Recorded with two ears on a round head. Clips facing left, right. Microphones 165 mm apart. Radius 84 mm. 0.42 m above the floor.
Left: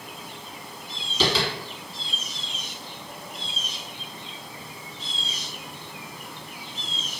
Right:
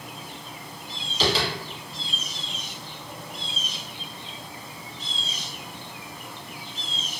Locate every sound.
1.2 s tapping: 85° left, 1.0 m